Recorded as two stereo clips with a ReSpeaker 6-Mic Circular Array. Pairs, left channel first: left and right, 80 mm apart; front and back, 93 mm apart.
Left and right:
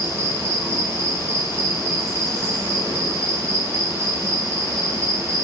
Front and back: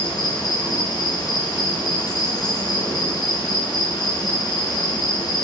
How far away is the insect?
About 1.1 m.